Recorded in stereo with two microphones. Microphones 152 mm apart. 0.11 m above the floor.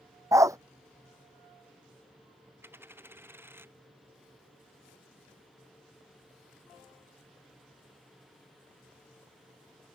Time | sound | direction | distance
0.3 | a dog barking | 20° right (ahead or behind) | ?
2.6 | a dropped coin | 15° right (ahead or behind) | ?